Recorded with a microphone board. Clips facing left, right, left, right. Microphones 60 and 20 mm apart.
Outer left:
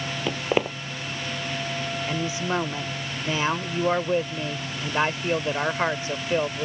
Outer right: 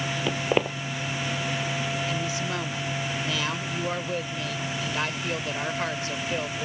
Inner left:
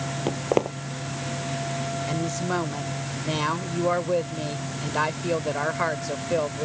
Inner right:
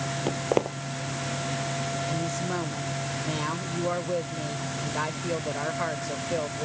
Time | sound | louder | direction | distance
0.3 | footsteps | outer left 1 dB, inner left 2 dB | 5° left (ahead or behind) | ?
2.1 | a woman speaking | outer left 2 dB, inner left 2 dB | 30° left (ahead or behind) | ?